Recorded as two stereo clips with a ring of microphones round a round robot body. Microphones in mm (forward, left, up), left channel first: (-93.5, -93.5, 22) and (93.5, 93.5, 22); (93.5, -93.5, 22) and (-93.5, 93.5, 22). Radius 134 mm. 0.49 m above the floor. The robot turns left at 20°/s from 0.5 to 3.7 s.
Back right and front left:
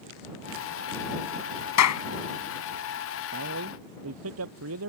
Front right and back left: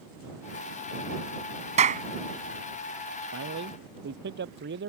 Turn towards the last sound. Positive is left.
turn(degrees=80)